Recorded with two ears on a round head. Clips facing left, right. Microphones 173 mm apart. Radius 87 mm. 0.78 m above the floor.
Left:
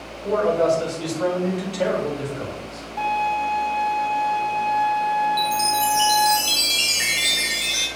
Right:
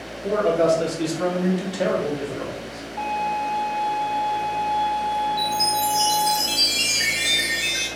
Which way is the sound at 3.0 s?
55° left (ahead or behind).